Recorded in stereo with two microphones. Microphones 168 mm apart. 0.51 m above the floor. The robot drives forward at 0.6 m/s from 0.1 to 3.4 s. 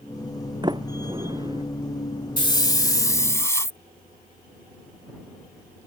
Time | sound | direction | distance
0.6 | a sliding door | 25° right (ahead or behind) | ?
2.4 | a hiss | 30° left (ahead or behind) | ?